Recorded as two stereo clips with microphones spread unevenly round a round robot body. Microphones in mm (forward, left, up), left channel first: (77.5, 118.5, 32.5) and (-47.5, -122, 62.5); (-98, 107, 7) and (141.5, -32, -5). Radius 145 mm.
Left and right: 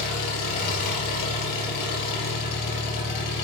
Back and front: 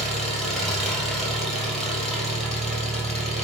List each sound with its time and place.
0.0 s an engine running: 60° left, 3.5 m